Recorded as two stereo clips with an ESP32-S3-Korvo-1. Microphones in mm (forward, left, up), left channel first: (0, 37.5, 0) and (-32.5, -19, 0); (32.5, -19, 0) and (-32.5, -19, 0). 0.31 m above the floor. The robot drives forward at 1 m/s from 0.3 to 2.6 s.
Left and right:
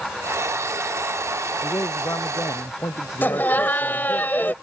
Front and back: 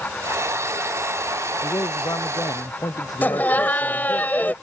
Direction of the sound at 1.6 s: 20° left.